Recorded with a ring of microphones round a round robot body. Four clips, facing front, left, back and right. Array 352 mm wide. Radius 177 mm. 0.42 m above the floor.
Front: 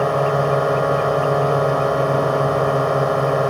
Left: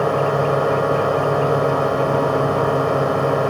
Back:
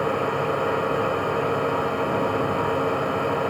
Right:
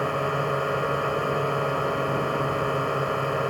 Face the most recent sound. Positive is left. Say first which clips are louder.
# left 8 dB, front 6 dB
turn(degrees=30)